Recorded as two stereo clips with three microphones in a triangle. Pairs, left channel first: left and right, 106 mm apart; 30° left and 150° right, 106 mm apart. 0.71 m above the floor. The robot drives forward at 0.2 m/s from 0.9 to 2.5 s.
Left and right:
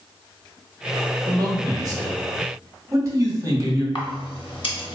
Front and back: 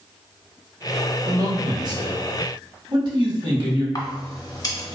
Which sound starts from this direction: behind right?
A man speaking, at 1.2 s.